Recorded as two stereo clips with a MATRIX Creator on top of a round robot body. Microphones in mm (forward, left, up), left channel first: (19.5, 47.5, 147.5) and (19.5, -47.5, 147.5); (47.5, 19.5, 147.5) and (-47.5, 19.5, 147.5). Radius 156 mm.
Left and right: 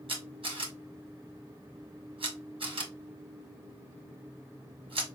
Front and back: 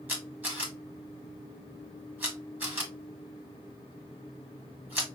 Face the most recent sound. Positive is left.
turn(degrees=-110)